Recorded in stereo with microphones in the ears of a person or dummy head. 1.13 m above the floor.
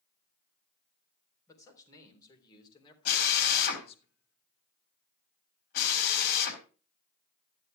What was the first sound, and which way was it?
A man speaking, 15° left (ahead or behind).